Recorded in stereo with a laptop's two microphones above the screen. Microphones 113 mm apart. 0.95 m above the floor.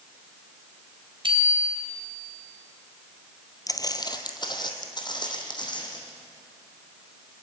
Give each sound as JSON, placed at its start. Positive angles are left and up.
{"t": 1.2, "sound": "a bicycle bell", "side_deg": -50, "distance_m": 3.5}
{"t": 3.7, "sound": "footsteps", "side_deg": 30, "distance_m": 1.1}